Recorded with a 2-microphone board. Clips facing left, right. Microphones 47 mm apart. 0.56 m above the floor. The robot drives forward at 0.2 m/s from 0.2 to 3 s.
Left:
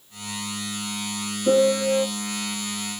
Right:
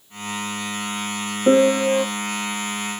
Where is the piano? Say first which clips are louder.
Right 3 dB; 55° right (ahead or behind), 1.8 m.